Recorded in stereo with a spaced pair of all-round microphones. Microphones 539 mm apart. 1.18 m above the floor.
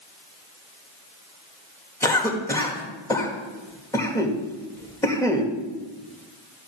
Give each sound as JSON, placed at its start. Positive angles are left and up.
{"t": 2.0, "sound": "a cough", "side_deg": 5, "distance_m": 1.8}